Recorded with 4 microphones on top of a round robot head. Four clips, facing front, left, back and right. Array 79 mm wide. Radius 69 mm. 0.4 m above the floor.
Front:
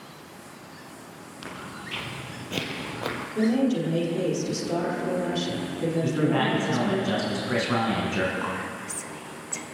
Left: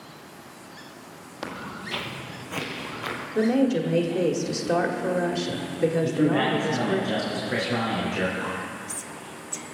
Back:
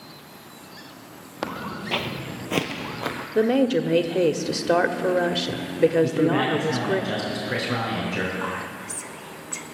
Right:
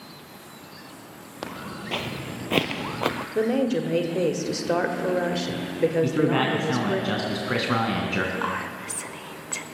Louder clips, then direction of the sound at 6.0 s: Even, back 3 dB; 70° right.